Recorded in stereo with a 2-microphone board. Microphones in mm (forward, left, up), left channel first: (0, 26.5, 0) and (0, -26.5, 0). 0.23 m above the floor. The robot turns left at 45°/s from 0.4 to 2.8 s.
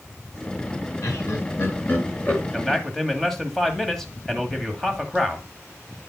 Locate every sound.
1.0 s laughter: 65° left (ahead or behind), 2.5 m; by 2.4 s 20° left (ahead or behind), 2.5 m
2.5 s a man speaking: 10° left (ahead or behind), 1.4 m; by 5.4 s 5° left (ahead or behind), 1.4 m